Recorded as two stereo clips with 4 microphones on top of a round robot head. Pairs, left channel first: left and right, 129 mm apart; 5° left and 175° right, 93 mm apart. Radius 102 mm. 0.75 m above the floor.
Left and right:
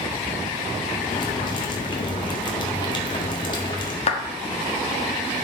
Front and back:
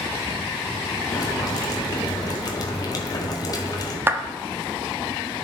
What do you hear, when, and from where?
1.1 s boiling: 40° left, 1.8 m
4.1 s a clap: 115° left, 1.2 m